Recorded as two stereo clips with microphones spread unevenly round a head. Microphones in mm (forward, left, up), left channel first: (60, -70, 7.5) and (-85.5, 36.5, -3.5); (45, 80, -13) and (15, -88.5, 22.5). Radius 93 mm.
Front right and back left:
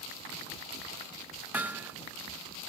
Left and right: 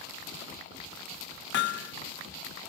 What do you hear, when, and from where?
1.5 s hammering: 65° left